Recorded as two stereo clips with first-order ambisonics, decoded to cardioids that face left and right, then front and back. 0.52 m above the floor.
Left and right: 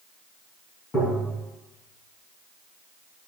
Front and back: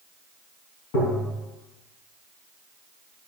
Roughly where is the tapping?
Ahead.